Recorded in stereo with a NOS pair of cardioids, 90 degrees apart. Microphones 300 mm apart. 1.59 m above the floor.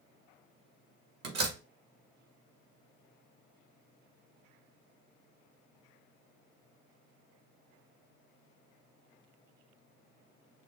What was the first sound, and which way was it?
A door slam, 55° right.